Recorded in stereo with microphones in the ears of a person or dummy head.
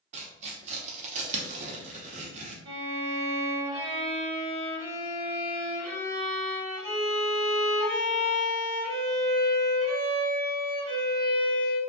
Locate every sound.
0.1 s tearing paper: 40° right (ahead or behind), 0.5 m
2.6 s a violin: 75° right (ahead or behind), 1.5 m